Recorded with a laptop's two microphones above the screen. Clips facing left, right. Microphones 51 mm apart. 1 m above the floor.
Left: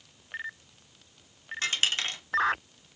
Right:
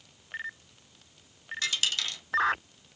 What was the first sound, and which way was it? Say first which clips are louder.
A dropped coin: left 3 dB; 35° left (ahead or behind).